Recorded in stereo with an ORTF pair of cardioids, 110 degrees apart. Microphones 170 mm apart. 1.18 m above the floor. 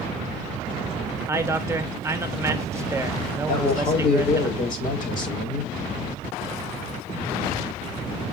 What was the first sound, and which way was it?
A man speaking, 15° right.